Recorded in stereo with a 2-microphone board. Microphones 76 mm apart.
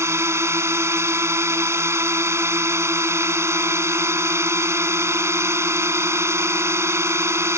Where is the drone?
40° right (ahead or behind).